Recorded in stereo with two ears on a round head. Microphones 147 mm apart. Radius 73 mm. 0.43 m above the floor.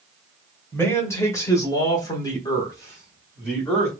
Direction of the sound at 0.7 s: 15° left (ahead or behind).